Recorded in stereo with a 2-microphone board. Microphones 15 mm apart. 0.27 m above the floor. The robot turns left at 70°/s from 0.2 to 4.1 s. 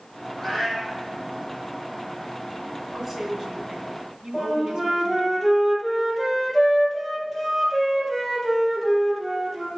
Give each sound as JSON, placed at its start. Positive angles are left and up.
{"t": 0.4, "sound": "a cat meowing", "azimuth_deg": 160, "distance_m": 5.0}
{"t": 2.9, "sound": "a woman speaking", "azimuth_deg": -15, "distance_m": 3.0}
{"t": 4.3, "sound": "a flute", "side_deg": -5, "distance_m": 3.5}